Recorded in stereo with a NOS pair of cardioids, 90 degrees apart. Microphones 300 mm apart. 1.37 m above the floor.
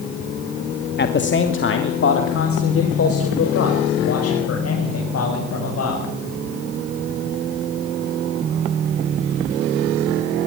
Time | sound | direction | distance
1.0 | a man speaking | 35° left | 2 m